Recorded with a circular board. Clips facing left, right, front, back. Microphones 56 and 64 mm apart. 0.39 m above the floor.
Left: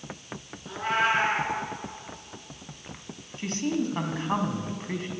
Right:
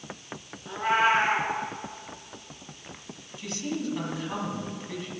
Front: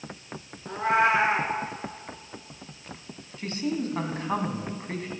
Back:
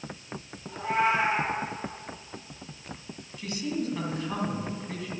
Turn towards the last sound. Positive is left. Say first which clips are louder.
# left 4 dB, front 2 dB
turn(degrees=45)